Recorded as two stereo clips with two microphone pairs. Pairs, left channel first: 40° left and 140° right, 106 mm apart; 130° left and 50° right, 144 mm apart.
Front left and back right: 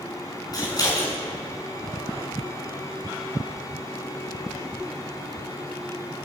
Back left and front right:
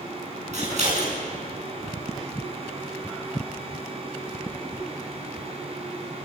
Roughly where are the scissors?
Ahead.